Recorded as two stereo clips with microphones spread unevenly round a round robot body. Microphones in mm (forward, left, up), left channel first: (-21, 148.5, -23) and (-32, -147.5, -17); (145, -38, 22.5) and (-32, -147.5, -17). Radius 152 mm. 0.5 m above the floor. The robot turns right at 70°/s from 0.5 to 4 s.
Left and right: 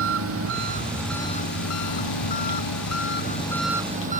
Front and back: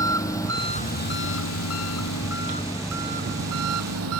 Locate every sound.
0.0 s an engine running: 40° right; by 4.2 s 155° right